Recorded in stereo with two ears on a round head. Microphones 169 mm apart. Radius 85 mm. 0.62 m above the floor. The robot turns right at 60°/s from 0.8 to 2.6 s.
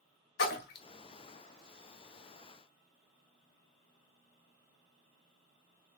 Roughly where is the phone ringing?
No phone ringing in this recording.